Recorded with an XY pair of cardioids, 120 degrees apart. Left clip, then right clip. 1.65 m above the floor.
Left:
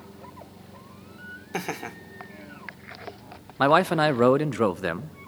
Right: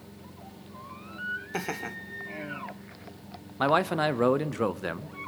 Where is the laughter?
10° left, 1.2 m.